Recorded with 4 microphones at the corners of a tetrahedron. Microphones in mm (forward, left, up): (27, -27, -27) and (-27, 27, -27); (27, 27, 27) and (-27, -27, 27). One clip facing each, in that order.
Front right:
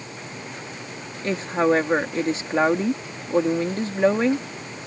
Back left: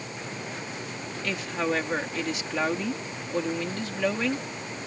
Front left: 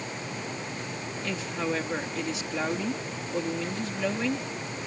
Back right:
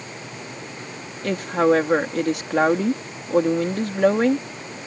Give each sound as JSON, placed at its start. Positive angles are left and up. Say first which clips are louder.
{"t": 1.2, "sound": "a woman speaking", "louder": "front right 8 dB, back right 13 dB", "azimuth_deg": -100}